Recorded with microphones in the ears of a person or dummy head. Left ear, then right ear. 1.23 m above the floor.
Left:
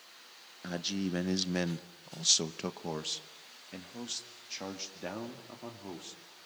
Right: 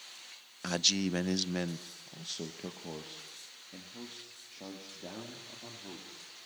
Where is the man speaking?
40° right (ahead or behind), 0.7 m; by 6.2 s 70° left (ahead or behind), 3 m.